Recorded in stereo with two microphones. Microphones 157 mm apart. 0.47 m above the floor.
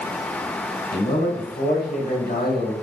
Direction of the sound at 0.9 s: 75° left (ahead or behind).